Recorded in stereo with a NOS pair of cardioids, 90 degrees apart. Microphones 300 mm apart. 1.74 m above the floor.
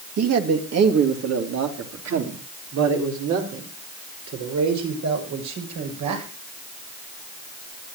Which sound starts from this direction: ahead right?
A man speaking, at 0.2 s.